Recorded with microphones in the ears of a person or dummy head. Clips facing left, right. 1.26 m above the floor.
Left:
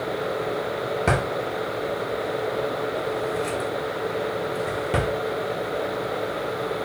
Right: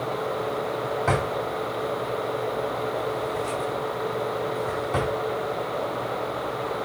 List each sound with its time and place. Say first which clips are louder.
1.1 s a drawer: left 1 dB; 30° left (ahead or behind), 0.9 m